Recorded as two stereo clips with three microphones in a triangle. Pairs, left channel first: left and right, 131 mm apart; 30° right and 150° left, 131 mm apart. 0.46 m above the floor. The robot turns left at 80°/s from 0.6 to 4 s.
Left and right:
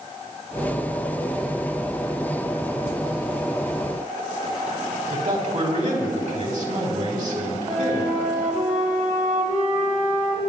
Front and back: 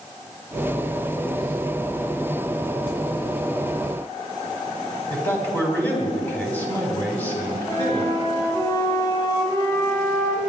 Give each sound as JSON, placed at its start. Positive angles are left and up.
{"t": 5.1, "sound": "a man speaking", "azimuth_deg": -105, "distance_m": 4.0}
{"t": 7.7, "sound": "a flute", "azimuth_deg": -90, "distance_m": 2.5}